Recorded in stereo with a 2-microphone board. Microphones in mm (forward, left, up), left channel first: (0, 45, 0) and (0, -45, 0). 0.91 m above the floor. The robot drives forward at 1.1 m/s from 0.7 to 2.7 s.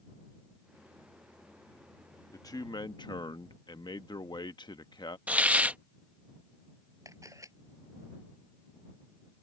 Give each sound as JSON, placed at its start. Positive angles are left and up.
{"t": 2.3, "sound": "a man speaking", "side_deg": 35}
{"t": 5.3, "sound": "a hiss", "side_deg": -15}
{"t": 7.0, "sound": "a camera shutter", "side_deg": -35}